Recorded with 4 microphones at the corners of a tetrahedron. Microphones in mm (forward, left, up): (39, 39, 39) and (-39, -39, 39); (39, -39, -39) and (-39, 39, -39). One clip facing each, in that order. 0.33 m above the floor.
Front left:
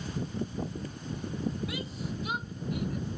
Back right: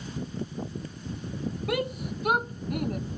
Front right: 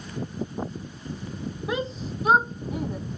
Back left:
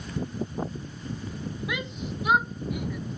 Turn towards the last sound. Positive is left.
turn(degrees=-100)